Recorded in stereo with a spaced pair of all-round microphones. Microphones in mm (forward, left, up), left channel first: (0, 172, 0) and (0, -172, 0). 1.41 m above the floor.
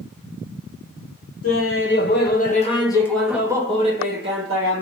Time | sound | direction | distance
1.4 | laughter | 45° left (ahead or behind) | 1.3 m